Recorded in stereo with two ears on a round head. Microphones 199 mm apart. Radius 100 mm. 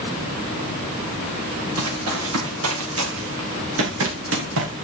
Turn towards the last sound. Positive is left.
turn(degrees=-60)  # may be behind; listen again after turning